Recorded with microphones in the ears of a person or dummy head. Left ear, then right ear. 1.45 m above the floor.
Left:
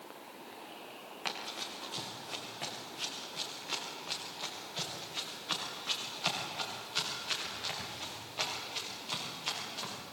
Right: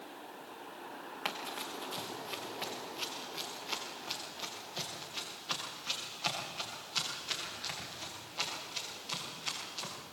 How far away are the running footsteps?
About 3.5 m.